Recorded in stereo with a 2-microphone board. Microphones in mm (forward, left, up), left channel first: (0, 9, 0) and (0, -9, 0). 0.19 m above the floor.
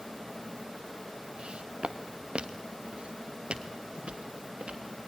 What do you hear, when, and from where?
1.4 s footsteps: 75° right (ahead or behind), 1.2 m; by 4.8 s 90° right, 3.5 m